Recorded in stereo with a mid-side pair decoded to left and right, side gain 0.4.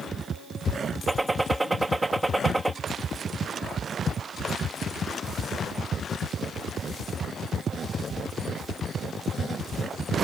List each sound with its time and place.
1.1 s a gunshot: 15° right